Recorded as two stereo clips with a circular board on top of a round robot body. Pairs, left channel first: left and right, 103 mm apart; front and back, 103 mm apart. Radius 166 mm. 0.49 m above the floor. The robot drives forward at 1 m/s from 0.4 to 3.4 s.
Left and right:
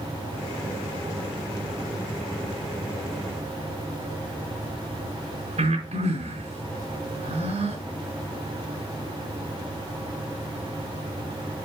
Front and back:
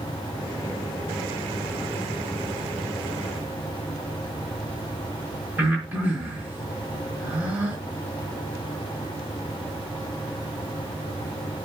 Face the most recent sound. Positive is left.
turn(degrees=-105)